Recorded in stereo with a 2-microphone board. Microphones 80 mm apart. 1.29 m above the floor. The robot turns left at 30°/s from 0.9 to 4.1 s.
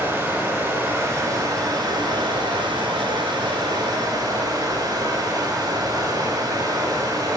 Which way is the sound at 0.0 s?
30° right.